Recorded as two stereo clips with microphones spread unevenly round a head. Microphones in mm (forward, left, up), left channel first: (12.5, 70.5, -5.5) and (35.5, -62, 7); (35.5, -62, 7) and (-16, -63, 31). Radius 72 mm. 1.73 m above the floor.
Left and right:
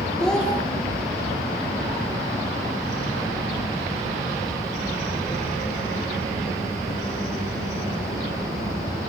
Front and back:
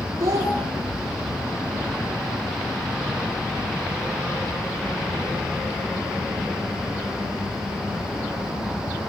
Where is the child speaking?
170° right, 3.5 m.